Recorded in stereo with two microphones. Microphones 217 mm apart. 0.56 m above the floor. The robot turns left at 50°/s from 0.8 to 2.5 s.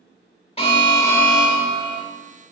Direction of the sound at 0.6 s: 30° left.